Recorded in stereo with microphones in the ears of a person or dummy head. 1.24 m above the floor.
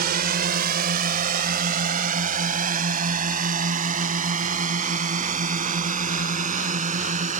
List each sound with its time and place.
0.0 s a drone: 45° right (ahead or behind); by 7.4 s 40° right (ahead or behind)